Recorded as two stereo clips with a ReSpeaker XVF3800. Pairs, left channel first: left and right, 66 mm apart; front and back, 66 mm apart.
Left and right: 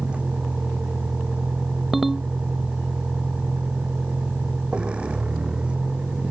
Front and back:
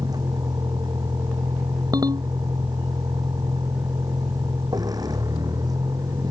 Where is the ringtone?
175° right.